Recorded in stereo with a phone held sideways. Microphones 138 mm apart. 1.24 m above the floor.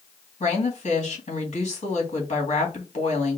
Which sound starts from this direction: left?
A woman speaking, at 0.4 s.